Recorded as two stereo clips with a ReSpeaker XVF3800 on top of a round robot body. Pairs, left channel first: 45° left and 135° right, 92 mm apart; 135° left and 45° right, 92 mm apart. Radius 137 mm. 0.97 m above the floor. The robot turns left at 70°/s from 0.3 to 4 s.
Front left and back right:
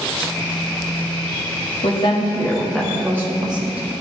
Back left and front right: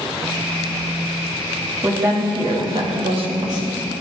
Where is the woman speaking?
25° left, 2 m; by 3.9 s 115° right, 2 m.